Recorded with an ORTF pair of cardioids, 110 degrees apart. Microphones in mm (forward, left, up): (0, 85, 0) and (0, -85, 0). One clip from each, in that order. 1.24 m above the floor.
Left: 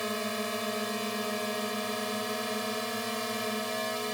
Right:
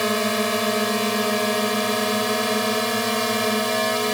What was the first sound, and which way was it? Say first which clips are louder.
A drone: right 11 dB; 60° right.